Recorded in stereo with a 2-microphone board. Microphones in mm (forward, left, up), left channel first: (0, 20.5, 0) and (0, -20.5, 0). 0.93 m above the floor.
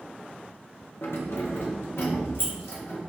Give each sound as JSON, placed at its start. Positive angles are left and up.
{"t": 1.0, "sound": "keys jangling", "side_deg": 70, "distance_m": 0.5}